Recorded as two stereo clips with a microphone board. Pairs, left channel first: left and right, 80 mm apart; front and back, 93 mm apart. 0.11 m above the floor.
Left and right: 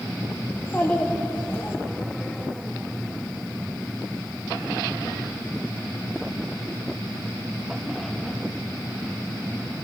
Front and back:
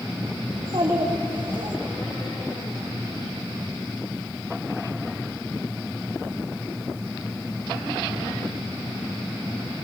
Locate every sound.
0.5 s a child speaking: 160° left, 5.5 m; by 1.8 s 155° left, 5 m